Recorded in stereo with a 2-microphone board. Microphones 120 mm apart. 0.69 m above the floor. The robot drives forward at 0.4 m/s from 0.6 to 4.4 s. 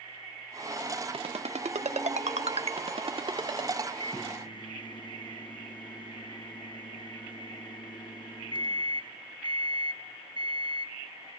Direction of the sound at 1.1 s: 55° right (ahead or behind).